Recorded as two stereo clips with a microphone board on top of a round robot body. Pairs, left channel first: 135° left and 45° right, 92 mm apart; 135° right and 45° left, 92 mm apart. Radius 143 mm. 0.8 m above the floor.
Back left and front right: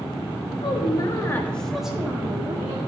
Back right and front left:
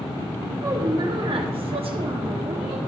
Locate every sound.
0.6 s a woman speaking: 105° left, 1.6 m; by 2.8 s 10° left, 2 m